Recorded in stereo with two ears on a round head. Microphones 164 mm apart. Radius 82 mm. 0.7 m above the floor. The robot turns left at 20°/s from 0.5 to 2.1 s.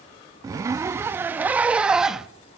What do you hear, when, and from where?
0.4 s a zipper: 15° right (ahead or behind), 0.5 m; by 2.3 s 5° right (ahead or behind), 0.5 m